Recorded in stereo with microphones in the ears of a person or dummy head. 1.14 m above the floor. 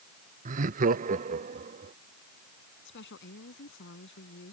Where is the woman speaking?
60° left (ahead or behind).